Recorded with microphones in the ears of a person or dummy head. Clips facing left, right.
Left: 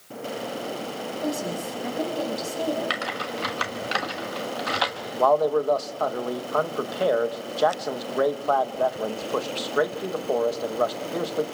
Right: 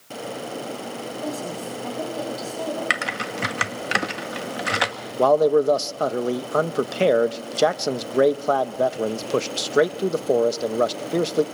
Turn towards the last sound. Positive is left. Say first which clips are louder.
# right 4 dB
turn(degrees=-45)  # may be behind; listen again after turning